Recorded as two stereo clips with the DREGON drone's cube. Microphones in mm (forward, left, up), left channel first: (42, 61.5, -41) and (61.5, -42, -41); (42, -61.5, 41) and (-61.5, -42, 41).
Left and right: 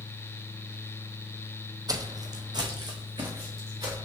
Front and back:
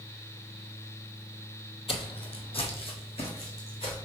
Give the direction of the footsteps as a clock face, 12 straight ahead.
1 o'clock.